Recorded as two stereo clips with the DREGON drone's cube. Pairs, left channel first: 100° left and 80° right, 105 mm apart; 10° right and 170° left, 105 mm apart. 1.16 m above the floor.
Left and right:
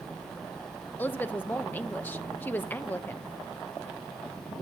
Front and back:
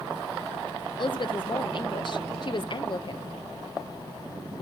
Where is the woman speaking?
30° left, 0.8 m.